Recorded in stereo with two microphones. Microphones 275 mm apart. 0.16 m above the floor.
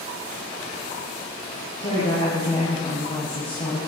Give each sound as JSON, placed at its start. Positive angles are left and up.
{"t": 1.8, "sound": "a woman speaking", "side_deg": 35, "distance_m": 5.5}